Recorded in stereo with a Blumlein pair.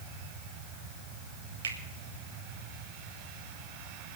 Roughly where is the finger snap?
Ahead right.